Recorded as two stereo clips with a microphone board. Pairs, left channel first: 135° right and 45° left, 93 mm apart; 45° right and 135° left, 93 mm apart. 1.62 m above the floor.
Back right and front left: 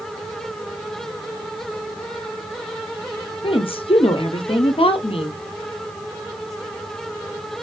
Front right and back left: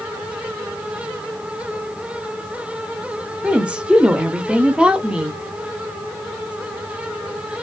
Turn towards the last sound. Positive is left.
turn(degrees=-145)